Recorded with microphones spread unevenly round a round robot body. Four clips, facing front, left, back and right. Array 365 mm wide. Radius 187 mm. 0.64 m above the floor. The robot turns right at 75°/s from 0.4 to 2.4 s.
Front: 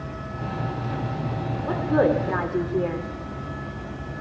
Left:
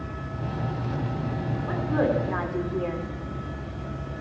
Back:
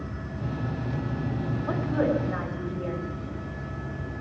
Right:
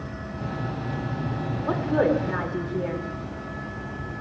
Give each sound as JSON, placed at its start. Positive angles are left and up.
{"t": 1.7, "sound": "a woman speaking", "azimuth_deg": -55, "distance_m": 2.0}